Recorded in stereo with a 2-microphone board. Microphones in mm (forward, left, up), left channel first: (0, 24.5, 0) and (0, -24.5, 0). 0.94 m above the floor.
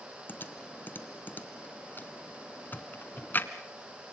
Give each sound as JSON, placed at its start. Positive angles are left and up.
{"t": 0.3, "sound": "typing on a keyboard", "side_deg": 40, "distance_m": 1.8}